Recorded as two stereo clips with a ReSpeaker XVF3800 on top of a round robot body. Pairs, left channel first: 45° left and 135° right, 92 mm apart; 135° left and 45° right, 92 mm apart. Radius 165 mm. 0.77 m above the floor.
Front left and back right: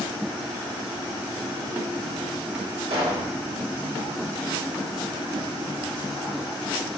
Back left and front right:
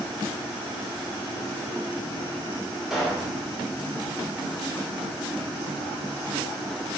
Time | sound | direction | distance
2.9 | a pop | 130° right | 2 m